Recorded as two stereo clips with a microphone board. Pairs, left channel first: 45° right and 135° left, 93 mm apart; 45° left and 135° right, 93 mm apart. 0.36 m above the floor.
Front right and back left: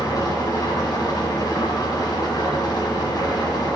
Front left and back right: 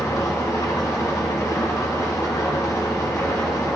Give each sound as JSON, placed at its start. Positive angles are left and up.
{"t": 0.0, "sound": "an engine running", "azimuth_deg": -5, "distance_m": 2.5}